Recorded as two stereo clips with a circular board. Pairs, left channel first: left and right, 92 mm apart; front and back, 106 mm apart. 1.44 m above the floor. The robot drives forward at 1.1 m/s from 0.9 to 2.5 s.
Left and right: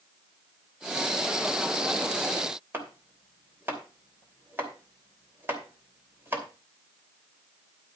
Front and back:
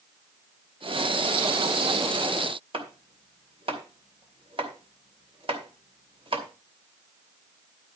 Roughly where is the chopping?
Behind right.